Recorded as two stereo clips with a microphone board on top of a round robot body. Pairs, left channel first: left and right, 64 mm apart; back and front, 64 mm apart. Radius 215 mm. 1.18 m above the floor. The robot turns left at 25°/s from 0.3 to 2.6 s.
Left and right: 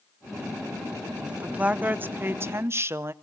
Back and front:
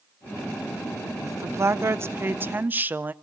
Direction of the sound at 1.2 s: 20° right.